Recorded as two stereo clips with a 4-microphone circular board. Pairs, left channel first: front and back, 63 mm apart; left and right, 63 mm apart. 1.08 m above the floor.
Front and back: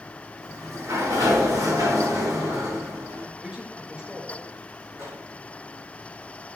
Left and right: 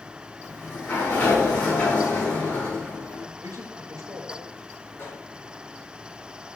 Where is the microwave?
140° left, 5 m.